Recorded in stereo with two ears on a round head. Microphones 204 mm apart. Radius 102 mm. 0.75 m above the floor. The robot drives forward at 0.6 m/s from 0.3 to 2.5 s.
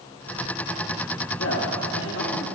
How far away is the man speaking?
About 1.9 m.